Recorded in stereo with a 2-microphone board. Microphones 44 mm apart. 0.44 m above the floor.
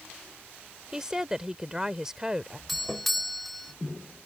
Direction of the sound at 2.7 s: Centre (ahead or behind).